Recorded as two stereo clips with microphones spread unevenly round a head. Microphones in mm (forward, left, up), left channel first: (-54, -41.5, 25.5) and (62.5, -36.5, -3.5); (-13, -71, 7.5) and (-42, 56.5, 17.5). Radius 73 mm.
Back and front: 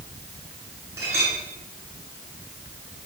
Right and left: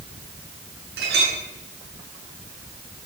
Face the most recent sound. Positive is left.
turn(degrees=75)